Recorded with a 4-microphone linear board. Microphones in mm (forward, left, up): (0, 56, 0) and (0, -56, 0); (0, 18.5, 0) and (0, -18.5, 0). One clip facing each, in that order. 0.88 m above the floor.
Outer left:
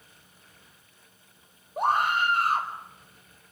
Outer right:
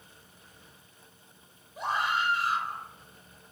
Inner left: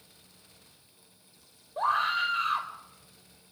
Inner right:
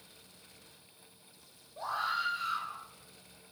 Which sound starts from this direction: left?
A scream, at 1.8 s.